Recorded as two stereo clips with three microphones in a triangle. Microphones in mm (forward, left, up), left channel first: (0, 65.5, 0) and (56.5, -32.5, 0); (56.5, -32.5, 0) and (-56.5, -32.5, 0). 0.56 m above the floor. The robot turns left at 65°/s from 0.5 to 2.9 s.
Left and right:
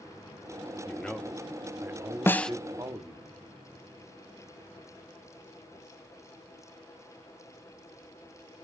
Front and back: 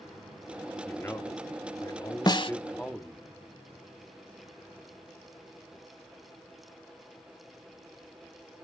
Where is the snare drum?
50° left, 0.8 m; by 2.5 s 35° left, 0.8 m.